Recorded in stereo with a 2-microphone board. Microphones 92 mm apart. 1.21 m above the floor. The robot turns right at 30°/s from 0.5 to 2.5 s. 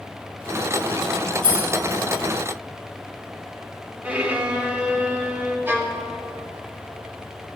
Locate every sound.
1.4 s keys jangling: 60° right (ahead or behind), 5.5 m; by 2.0 s 80° right, 5.5 m
4.0 s a violin: 15° right (ahead or behind), 1.5 m
5.7 s a violin: 25° right (ahead or behind), 1.4 m